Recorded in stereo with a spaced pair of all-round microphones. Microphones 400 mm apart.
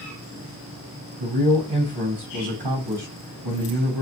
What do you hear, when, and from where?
1.2 s a man speaking: 75° right (ahead or behind), 0.9 m